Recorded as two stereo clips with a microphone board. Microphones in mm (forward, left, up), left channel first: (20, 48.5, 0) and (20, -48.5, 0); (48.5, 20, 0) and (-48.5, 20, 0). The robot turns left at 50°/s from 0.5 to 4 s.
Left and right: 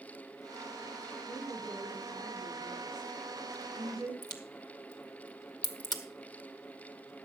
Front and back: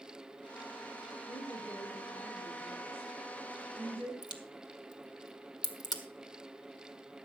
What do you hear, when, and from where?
1.3 s a woman speaking: 20° left, 7 m; by 4.1 s 120° right, 7 m
4.2 s a crack: 45° left, 1.4 m